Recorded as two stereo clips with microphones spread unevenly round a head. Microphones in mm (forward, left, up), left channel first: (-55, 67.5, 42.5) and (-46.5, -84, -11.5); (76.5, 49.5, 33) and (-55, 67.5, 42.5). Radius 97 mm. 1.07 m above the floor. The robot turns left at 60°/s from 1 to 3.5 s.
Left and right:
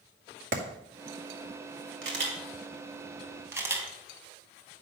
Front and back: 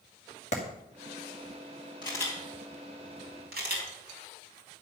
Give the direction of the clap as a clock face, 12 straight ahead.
2 o'clock.